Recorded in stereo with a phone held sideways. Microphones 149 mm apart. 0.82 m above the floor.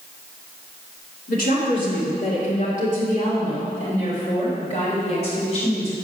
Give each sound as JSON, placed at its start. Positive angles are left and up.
{"t": 1.3, "sound": "a woman speaking", "side_deg": 65, "distance_m": 2.0}